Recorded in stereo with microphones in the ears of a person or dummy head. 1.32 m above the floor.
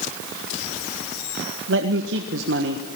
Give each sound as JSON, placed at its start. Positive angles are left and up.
{"t": 1.7, "sound": "a man speaking", "side_deg": -60, "distance_m": 1.4}